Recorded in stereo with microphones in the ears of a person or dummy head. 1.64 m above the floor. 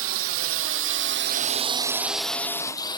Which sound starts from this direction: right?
A drone, at 0.0 s.